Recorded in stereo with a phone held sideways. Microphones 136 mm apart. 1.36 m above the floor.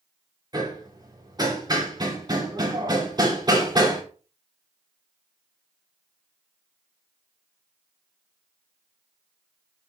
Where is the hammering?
30° right (ahead or behind), 3 m.